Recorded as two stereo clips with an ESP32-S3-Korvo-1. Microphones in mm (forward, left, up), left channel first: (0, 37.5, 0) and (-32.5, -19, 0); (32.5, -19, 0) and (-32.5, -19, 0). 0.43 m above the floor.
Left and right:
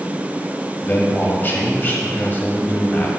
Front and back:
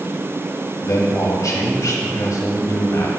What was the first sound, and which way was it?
A man speaking, 5° left.